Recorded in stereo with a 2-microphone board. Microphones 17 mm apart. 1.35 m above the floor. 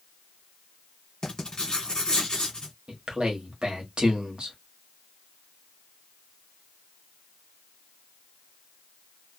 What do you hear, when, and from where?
1.2 s writing: 50° left (ahead or behind), 1.4 m
2.9 s a man speaking: 65° right (ahead or behind), 1.0 m